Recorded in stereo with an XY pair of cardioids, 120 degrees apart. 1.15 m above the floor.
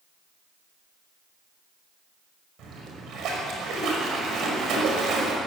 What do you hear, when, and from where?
2.6 s a splash: 60° right, 5 m